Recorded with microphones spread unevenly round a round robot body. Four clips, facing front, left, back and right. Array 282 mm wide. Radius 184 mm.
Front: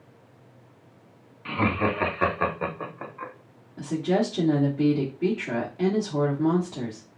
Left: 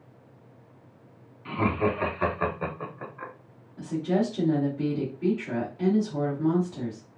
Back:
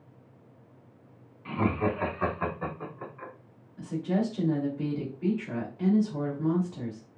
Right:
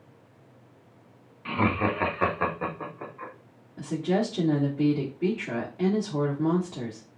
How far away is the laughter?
About 2 m.